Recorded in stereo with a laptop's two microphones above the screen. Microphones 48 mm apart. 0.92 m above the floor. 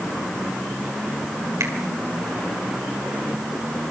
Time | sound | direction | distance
1.6 | a finger snap | 85° right | 2.5 m